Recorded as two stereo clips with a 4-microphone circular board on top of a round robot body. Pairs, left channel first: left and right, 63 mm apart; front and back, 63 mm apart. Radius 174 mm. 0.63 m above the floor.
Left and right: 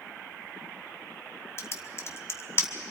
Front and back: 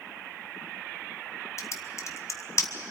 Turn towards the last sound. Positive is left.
turn(degrees=40)